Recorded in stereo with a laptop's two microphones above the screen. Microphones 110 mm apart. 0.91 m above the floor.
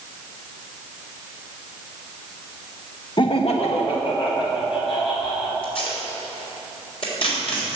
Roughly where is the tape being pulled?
Left.